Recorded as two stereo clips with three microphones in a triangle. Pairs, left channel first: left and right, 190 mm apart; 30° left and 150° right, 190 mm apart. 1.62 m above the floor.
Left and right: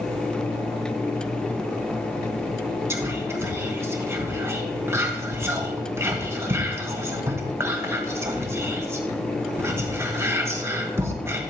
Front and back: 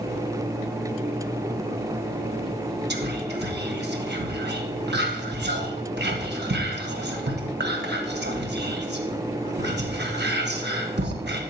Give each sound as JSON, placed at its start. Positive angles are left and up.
{"t": 2.9, "sound": "whispering", "azimuth_deg": -165, "distance_m": 1.3}